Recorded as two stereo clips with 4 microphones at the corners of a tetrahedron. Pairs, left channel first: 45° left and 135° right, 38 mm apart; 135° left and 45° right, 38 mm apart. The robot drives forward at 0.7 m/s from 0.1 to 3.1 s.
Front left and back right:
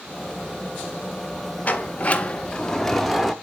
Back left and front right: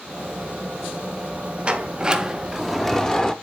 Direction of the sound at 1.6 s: 10° left.